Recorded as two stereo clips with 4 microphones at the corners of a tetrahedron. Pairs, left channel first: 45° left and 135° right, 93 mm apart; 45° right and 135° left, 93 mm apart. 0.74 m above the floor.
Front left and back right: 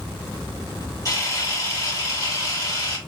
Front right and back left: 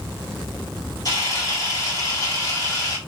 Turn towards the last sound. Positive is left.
turn(degrees=0)